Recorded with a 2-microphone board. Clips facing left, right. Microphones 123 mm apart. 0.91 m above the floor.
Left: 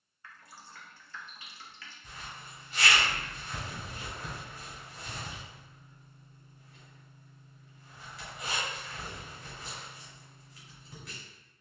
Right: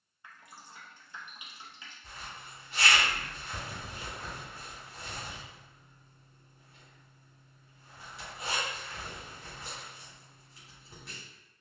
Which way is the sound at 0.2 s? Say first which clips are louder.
Even; 20° right (ahead or behind).